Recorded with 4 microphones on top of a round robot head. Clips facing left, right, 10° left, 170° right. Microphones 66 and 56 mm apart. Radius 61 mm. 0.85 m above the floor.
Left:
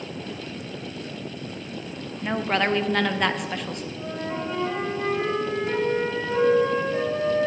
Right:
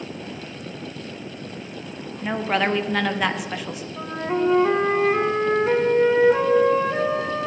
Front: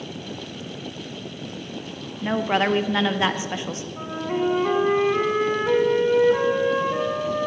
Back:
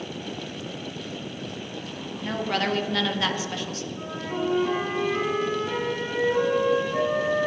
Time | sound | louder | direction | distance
2.2 | a woman speaking | right 1 dB, front 5 dB | 5° right | 0.7 m
4.0 | a flute | right 9 dB, front 5 dB | 55° right | 1.0 m